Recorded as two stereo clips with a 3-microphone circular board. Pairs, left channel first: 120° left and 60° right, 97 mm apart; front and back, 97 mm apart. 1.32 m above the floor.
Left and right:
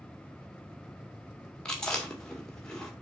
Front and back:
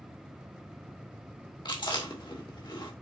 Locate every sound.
1.6 s chewing: 35° left, 2 m